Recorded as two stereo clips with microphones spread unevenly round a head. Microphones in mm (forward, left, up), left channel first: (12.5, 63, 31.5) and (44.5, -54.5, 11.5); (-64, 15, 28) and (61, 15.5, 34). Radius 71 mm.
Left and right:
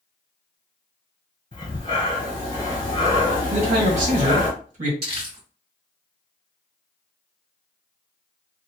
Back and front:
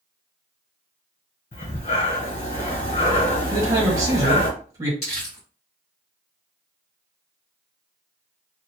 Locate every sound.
1.5 s breathing: 150° left, 1.6 m
3.5 s a man speaking: 65° right, 1.4 m
5.0 s crumpling: 135° right, 1.8 m